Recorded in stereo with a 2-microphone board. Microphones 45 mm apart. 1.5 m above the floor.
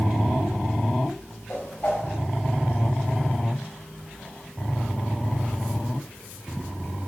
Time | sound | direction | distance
1.5 | a whoosh | 45° left (ahead or behind) | 3.5 m